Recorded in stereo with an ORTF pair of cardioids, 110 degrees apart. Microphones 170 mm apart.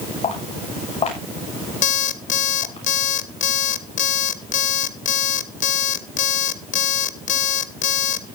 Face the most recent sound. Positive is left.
turn(degrees=50)